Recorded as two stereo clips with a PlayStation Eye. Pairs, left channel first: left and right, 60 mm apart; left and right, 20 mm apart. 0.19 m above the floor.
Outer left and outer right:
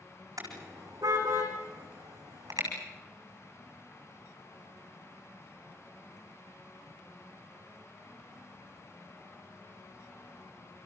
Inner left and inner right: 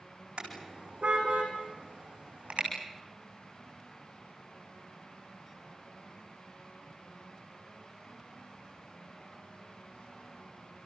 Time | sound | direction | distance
0.4 | a car horn | 70° right (ahead or behind) | 7 m